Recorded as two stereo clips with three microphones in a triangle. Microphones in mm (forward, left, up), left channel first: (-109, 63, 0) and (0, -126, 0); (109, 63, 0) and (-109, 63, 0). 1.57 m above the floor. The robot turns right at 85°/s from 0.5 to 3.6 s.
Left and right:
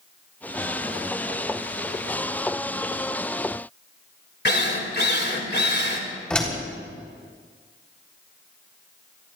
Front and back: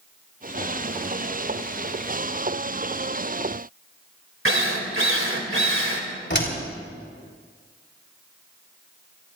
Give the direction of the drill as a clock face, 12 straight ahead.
7 o'clock.